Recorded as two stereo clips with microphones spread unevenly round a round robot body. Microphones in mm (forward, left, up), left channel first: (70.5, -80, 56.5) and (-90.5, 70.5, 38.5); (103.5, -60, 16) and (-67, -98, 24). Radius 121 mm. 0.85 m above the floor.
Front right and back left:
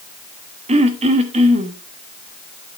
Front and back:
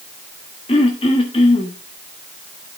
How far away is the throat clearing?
About 1.0 m.